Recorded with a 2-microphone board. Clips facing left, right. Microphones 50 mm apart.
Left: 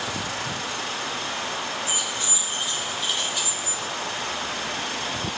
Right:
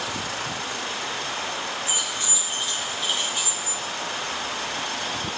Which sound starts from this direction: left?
Keys jangling, at 1.9 s.